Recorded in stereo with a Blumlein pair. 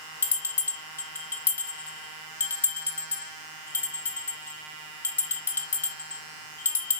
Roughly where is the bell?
Ahead left.